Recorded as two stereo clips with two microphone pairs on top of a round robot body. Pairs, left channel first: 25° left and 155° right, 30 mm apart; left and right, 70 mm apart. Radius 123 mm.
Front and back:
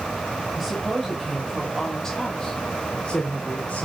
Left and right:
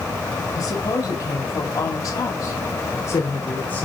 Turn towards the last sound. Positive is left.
turn(degrees=35)